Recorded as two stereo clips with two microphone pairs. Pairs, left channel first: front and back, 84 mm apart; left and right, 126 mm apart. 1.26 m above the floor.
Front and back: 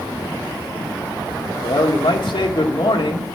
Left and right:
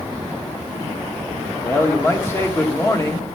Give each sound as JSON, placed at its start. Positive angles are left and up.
{"t": 1.6, "sound": "a man speaking", "azimuth_deg": 25, "distance_m": 1.4}